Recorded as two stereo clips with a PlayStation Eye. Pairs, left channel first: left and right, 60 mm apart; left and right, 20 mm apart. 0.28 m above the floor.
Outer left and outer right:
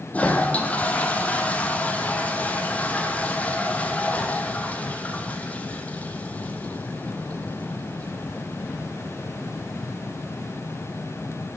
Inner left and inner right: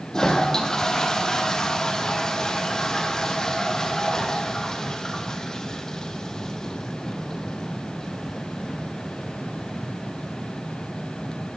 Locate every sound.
0.1 s a toilet flushing: 25° left (ahead or behind), 1.7 m